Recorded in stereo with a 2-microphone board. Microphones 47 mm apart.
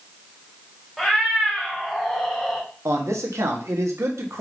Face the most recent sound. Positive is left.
turn(degrees=-85)